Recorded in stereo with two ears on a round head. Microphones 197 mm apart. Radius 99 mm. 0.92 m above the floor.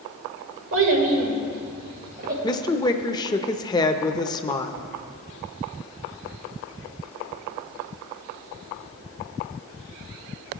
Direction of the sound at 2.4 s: 20° left (ahead or behind).